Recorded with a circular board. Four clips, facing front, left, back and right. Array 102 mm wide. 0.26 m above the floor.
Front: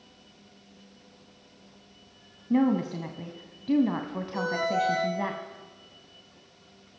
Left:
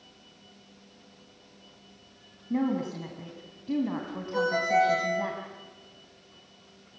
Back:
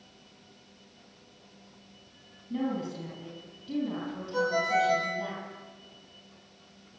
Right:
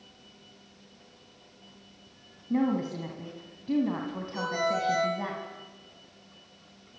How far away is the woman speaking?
About 2.0 m.